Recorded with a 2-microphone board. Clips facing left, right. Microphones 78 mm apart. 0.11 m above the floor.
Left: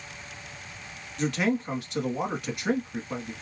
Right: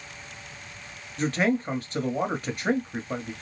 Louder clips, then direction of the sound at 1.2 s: Right 2 dB; 40° right (ahead or behind).